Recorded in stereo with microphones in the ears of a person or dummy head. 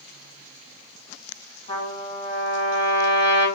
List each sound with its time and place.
1.7 s a trumpet: 35° left (ahead or behind), 1.4 m